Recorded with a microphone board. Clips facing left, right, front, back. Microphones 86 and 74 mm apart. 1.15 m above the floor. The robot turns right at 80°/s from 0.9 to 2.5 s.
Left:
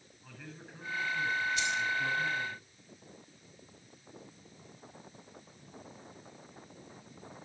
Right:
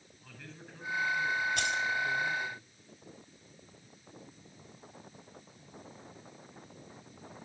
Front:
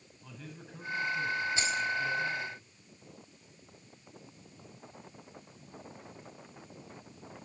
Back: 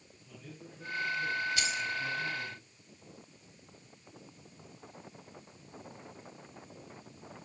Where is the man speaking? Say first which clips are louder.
Left 1 dB, front 2 dB; 5° left, 10 m; by 2.6 s 135° left, 10 m.